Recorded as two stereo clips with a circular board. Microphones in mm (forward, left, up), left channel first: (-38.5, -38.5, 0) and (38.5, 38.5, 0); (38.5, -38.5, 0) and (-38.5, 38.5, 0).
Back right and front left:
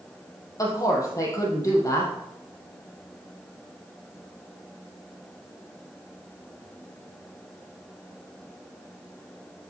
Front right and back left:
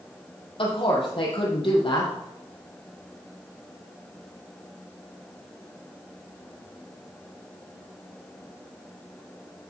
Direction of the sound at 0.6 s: 80° right.